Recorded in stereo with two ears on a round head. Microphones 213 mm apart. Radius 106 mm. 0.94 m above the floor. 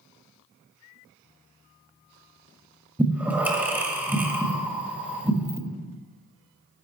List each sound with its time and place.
3.0 s breathing: 10° right (ahead or behind), 1.3 m